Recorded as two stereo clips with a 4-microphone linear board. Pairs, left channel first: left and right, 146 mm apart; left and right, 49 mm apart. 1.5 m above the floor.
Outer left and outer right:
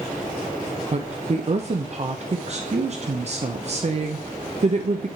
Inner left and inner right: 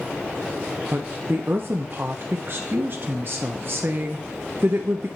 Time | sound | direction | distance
0.9 | a woman speaking | 50° right (ahead or behind) | 0.5 m